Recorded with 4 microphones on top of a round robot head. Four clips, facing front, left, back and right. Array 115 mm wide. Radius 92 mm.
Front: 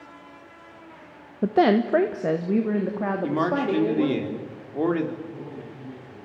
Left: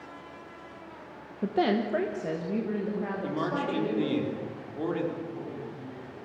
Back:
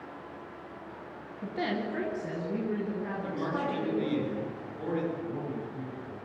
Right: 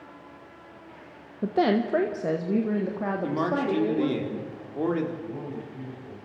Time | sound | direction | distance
1.4 | a woman speaking | 5° right | 1.1 m
3.2 | a man speaking | 15° right | 4.5 m
5.2 | a man speaking | 135° right | 9 m